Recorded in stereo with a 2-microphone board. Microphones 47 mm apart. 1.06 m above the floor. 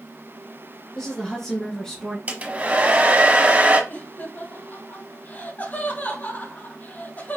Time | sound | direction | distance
0.9 | a woman speaking | 15° left (ahead or behind) | 1.4 m
2.3 | a hair dryer | 35° right (ahead or behind) | 1.0 m
3.9 | laughter | 40° left (ahead or behind) | 2.5 m